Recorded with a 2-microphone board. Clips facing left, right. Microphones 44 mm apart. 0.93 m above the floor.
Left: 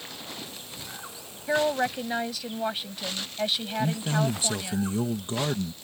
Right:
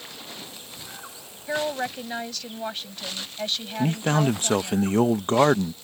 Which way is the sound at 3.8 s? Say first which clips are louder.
Right 5 dB; 55° right (ahead or behind).